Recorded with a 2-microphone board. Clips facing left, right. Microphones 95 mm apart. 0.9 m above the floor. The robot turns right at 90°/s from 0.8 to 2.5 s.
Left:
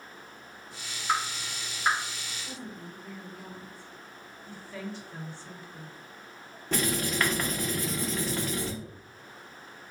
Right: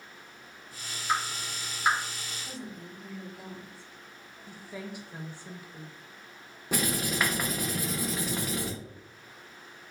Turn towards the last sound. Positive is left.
turn(degrees=-10)  # may be behind; listen again after turning